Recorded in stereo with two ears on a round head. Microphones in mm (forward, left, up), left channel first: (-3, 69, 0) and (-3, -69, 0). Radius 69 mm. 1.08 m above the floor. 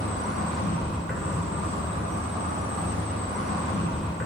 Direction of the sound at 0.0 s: Centre (ahead or behind).